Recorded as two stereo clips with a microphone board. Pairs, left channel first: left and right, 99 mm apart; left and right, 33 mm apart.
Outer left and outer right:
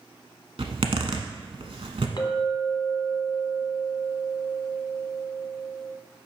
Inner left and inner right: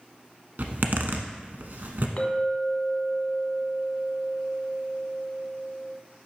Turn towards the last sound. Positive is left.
turn(degrees=50)  # may be behind; listen again after turning